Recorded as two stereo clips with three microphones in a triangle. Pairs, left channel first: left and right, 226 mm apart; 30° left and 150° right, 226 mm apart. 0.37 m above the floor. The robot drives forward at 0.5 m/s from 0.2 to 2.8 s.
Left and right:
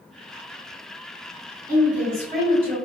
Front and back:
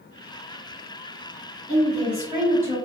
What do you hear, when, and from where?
1.7 s a woman speaking: 95° right, 1.7 m; by 2.8 s 120° right, 1.9 m